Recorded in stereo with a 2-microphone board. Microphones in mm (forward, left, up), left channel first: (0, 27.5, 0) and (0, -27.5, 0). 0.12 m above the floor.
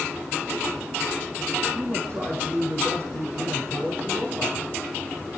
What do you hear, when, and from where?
1.8 s a man speaking: 55° right (ahead or behind), 7.5 m